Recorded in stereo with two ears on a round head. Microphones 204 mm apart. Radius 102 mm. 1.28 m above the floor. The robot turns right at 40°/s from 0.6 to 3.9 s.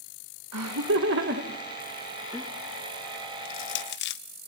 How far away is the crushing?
About 0.9 m.